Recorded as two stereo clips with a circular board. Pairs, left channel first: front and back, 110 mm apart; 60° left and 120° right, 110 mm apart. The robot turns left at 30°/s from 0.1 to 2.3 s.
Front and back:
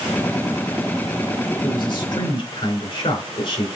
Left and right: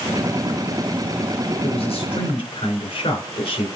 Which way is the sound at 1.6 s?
45° left.